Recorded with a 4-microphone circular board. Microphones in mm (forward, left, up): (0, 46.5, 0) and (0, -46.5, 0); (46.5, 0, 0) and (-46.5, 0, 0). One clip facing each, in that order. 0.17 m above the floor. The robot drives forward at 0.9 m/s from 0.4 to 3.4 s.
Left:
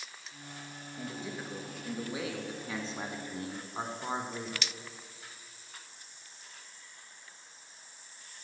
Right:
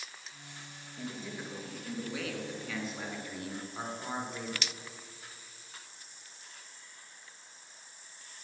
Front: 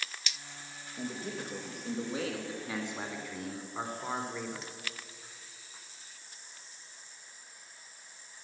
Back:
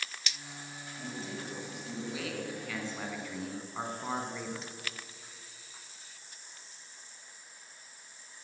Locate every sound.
1.0 s a man speaking: 20° left, 2.5 m; by 4.7 s 90° left, 1.4 m